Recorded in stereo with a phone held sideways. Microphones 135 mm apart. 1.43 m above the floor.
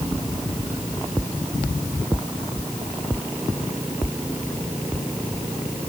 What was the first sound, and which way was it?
Only background noise.